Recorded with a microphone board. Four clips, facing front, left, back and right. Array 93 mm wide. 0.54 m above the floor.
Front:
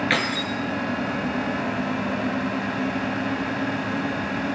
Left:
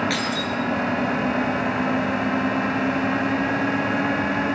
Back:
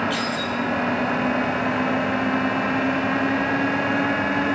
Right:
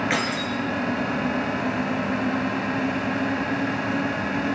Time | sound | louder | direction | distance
0.1 | keys jangling | even, even | 30° right | 6.5 m